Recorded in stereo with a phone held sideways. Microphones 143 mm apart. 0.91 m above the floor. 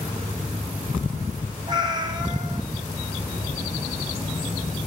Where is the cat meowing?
30° right (ahead or behind), 2 m.